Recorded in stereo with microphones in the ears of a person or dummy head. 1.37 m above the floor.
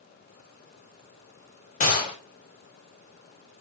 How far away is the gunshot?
About 1.7 m.